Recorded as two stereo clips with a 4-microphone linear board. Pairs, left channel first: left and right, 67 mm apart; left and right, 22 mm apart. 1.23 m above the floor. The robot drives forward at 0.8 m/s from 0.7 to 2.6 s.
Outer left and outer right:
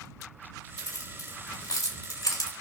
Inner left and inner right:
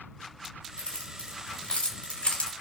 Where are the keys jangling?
60° left (ahead or behind), 4.5 m; by 2.5 s 75° left (ahead or behind), 4 m.